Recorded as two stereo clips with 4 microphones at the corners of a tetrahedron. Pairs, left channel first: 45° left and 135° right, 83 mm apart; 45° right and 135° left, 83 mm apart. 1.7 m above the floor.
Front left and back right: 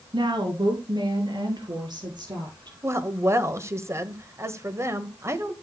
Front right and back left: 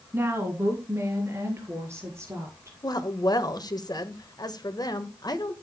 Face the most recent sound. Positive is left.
turn(degrees=-80)